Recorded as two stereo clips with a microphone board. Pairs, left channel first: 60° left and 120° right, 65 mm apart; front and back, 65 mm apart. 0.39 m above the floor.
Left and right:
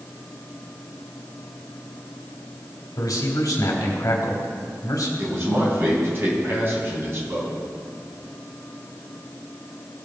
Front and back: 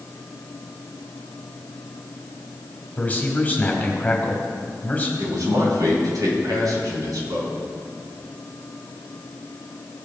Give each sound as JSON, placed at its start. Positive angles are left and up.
{"t": 3.0, "sound": "a man speaking", "azimuth_deg": 65, "distance_m": 1.9}
{"t": 5.2, "sound": "a man speaking", "azimuth_deg": -170, "distance_m": 3.0}